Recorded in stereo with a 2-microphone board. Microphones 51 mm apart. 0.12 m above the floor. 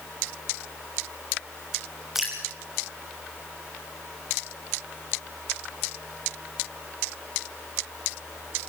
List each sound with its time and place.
2.1 s dripping: 5° right (ahead or behind), 6.5 m